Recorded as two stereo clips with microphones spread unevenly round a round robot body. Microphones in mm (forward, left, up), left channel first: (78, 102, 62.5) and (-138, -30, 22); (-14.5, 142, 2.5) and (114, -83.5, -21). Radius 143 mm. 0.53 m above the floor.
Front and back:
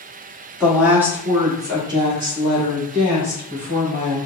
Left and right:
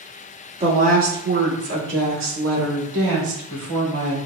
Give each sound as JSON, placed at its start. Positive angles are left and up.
{"t": 0.6, "sound": "a woman speaking", "azimuth_deg": -80, "distance_m": 1.2}